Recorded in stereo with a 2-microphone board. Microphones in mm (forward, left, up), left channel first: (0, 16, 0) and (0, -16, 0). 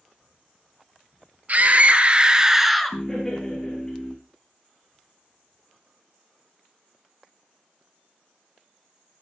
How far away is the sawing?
I don't hear sawing.